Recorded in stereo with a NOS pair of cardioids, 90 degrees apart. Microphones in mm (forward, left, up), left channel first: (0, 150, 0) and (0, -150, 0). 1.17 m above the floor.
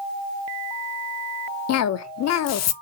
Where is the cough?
60° left, 0.6 m.